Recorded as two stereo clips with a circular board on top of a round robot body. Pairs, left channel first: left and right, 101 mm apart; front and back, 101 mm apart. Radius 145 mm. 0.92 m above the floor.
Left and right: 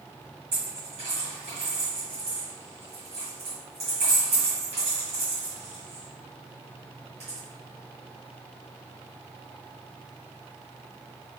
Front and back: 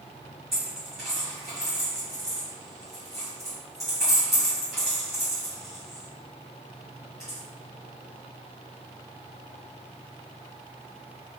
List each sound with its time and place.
0.5 s a dropped coin: 90° right, 1.1 m